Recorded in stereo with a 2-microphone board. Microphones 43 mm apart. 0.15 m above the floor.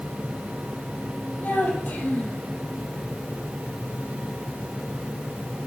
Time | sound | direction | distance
1.4 | a child speaking | 45° left (ahead or behind) | 4 m